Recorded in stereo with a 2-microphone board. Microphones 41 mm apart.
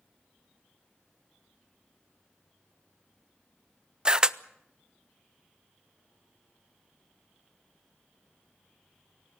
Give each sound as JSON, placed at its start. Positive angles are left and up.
{"t": 4.0, "sound": "a camera shutter", "side_deg": -20, "distance_m": 0.6}